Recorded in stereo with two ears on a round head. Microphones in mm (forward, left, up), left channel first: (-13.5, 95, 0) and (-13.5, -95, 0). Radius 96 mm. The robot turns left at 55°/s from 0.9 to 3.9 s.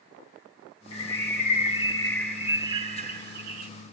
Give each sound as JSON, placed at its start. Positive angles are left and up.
{"t": 0.9, "sound": "a bird", "azimuth_deg": 75, "distance_m": 2.0}